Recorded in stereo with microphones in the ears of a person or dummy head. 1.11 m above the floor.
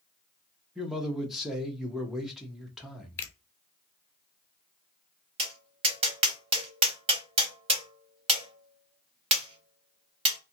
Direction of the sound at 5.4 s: 35° right (ahead or behind).